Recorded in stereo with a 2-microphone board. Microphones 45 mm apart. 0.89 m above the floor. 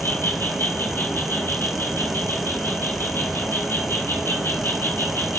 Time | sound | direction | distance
0.0 | an insect | 75° left (ahead or behind) | 3.5 m